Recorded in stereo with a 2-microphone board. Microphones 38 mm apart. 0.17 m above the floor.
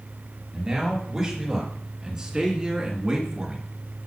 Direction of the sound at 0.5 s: 10° right (ahead or behind).